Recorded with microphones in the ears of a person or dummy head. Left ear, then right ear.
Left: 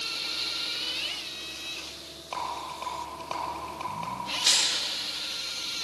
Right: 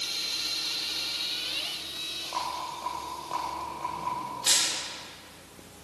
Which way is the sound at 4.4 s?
20° left (ahead or behind).